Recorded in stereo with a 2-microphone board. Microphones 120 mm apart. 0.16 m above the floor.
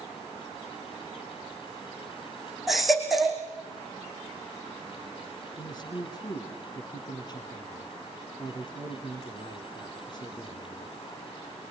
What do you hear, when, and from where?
2.7 s a baby crying: centre (ahead or behind), 4.5 m
5.6 s a man speaking: 35° left (ahead or behind), 2 m